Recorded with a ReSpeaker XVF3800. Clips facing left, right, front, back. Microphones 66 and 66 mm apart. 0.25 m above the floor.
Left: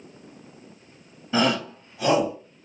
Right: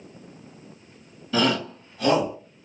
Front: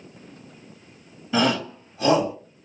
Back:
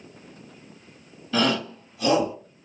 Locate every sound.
1.3 s a shout: 55° left, 1.0 m; by 2.3 s 10° left, 1.3 m